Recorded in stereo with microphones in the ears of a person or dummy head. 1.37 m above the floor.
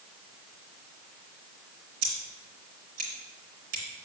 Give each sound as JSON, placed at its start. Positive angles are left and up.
{"t": 2.0, "sound": "scissors", "side_deg": -50, "distance_m": 3.0}